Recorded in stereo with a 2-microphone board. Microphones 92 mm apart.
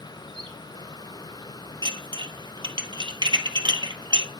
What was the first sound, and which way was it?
A bird, 65° right (ahead or behind).